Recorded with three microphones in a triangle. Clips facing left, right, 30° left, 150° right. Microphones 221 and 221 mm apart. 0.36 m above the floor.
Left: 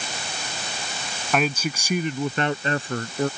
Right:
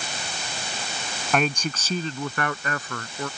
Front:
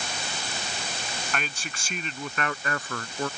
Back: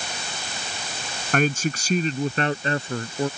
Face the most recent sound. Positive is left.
turn(degrees=140)